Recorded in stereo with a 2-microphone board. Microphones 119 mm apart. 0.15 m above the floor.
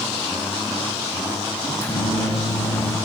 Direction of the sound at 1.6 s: 20° left (ahead or behind).